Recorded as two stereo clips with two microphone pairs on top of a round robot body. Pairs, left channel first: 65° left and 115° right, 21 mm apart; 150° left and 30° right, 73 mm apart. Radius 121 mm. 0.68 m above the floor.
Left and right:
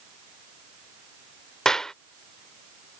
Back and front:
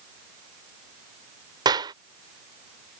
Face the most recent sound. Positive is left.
turn(degrees=0)